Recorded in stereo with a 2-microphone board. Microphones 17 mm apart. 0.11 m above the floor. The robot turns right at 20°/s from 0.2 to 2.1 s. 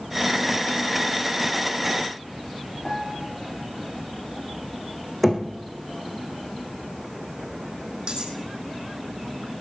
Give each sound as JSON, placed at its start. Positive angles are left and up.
{"t": 2.9, "sound": "a piano", "side_deg": 35, "distance_m": 7.0}
{"t": 5.2, "sound": "knocking", "side_deg": 0, "distance_m": 4.0}
{"t": 8.1, "sound": "cutlery clinking", "side_deg": -50, "distance_m": 3.5}